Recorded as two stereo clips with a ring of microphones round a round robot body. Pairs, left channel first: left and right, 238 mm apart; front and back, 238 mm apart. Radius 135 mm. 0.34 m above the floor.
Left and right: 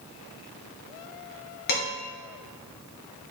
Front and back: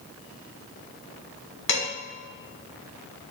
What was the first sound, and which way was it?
Dishes clattering, 35° left.